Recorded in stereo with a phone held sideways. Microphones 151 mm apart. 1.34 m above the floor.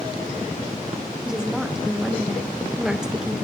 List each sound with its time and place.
1.2 s a woman speaking: 5° right (ahead or behind), 1.5 m